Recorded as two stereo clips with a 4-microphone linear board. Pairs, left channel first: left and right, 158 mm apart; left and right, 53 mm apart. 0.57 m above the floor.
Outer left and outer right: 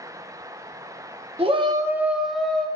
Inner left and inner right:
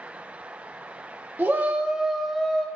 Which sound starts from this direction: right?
A shout, at 1.4 s.